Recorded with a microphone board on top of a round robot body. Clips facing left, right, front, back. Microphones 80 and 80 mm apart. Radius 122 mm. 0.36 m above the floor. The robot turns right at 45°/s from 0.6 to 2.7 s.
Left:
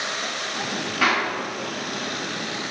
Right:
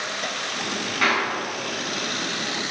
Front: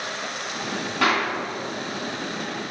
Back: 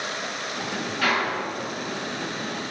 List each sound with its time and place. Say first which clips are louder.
1.0 s a clap: left 1 dB, front 2 dB; 5° left, 4.5 m; by 1.3 s 20° left, 4.5 m